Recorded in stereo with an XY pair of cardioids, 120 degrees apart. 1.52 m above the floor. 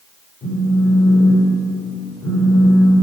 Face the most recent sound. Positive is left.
turn(degrees=35)